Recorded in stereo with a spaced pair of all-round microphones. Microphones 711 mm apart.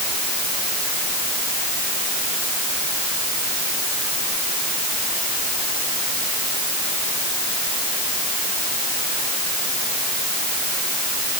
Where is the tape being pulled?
No tape being pulled in this recording.